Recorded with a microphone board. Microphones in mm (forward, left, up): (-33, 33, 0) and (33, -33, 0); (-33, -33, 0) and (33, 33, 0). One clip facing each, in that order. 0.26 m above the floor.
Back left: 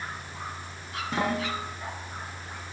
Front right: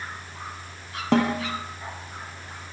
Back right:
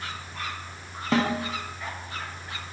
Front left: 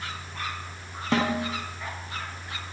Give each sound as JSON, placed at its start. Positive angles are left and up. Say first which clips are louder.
{"t": 1.1, "sound": "a snare drum", "louder": "front right 7 dB, back right 1 dB", "azimuth_deg": -50, "distance_m": 8.0}